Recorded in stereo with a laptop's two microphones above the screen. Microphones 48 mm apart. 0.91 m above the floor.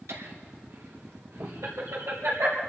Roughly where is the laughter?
Right.